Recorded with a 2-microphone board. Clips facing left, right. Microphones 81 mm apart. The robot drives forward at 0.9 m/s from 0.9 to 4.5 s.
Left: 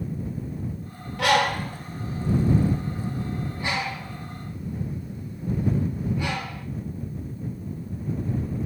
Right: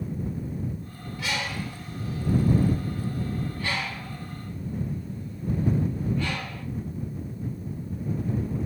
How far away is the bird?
About 0.9 m.